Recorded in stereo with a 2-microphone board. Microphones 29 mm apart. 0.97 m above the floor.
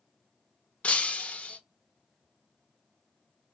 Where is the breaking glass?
50° left (ahead or behind), 0.6 m.